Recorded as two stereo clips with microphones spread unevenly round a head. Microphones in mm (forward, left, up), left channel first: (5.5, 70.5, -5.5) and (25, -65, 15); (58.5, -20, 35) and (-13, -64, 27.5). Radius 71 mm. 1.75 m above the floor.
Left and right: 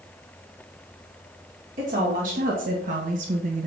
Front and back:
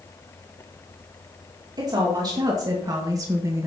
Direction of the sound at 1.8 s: 110° right.